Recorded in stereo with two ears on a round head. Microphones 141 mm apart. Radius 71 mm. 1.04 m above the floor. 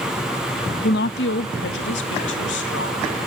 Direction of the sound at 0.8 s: 70° left (ahead or behind).